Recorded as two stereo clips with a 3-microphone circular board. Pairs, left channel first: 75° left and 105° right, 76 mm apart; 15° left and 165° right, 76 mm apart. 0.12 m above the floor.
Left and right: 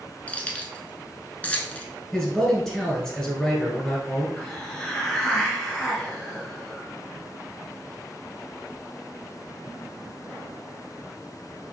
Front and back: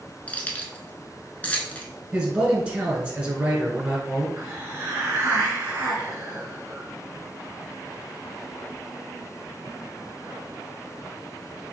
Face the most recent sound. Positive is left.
turn(degrees=145)